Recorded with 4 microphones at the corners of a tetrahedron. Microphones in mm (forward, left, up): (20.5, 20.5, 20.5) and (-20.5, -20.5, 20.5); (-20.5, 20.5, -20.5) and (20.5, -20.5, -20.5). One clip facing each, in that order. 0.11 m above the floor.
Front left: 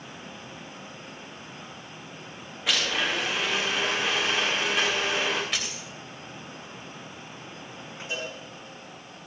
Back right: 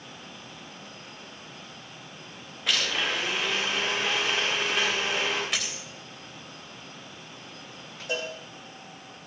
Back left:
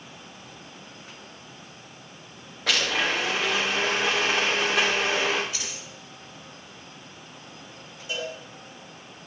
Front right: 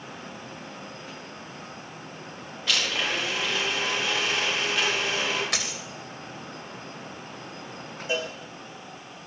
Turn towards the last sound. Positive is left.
turn(degrees=-110)